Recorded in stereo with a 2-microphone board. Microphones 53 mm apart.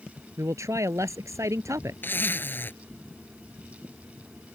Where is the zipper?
40° left (ahead or behind).